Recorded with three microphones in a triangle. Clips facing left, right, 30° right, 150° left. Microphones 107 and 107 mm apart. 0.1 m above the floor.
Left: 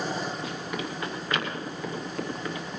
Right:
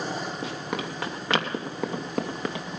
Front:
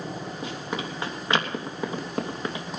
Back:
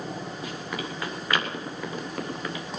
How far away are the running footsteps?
About 4.5 m.